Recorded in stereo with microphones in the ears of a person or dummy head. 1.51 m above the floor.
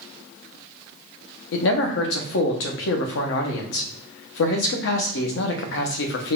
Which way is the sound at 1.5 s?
70° left (ahead or behind).